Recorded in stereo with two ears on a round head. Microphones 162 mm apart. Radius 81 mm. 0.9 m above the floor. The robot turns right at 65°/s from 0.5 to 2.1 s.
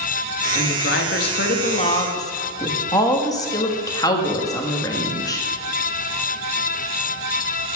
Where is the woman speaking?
55° left, 1.6 m; by 5.4 s 155° left, 1.6 m.